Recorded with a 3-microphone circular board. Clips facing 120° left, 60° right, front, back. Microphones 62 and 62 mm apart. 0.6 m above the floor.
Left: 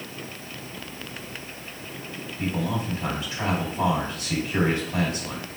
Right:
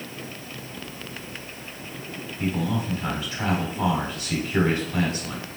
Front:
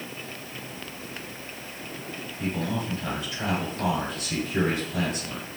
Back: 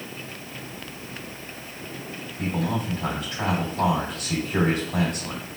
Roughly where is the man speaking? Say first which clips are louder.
Right 1 dB, back 3 dB; behind.